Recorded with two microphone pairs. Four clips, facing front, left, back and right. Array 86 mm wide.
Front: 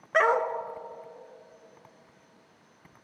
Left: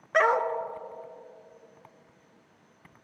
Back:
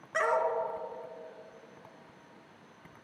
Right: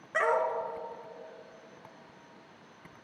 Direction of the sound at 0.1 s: 40° left.